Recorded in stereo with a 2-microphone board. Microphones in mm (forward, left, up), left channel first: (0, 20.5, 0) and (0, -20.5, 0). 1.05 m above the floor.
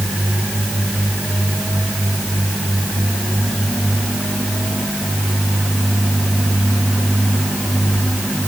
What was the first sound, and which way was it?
Only background noise.